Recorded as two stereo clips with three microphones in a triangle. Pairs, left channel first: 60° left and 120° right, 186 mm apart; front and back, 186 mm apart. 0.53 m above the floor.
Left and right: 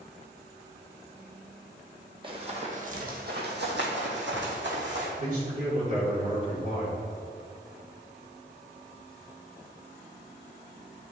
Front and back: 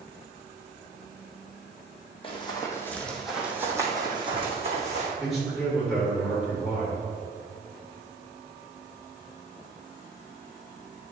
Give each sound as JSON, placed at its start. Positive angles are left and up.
{"t": 2.2, "sound": "running footsteps", "azimuth_deg": -60, "distance_m": 1.5}
{"t": 5.2, "sound": "a man speaking", "azimuth_deg": -90, "distance_m": 2.0}